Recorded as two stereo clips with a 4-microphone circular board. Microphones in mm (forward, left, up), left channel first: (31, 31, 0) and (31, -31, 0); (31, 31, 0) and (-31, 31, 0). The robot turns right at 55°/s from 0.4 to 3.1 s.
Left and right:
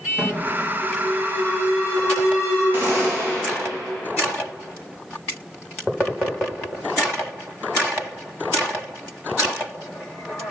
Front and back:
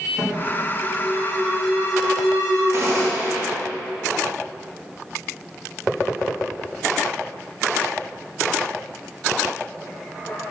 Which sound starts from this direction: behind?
An alarm, at 0.2 s.